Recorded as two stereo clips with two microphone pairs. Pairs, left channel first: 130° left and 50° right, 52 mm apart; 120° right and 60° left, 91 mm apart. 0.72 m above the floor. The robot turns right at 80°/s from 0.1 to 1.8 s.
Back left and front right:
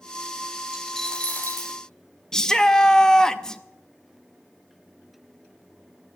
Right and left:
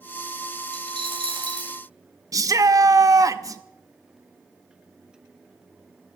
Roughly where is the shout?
Ahead left.